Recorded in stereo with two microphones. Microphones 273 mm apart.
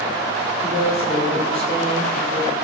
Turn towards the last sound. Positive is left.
turn(degrees=-35)  # may be behind; listen again after turning